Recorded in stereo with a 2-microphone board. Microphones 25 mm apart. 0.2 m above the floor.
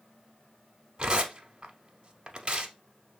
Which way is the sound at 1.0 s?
40° right (ahead or behind).